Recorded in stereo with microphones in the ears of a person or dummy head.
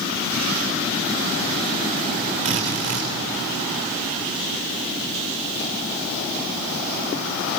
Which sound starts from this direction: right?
A drill, at 2.5 s.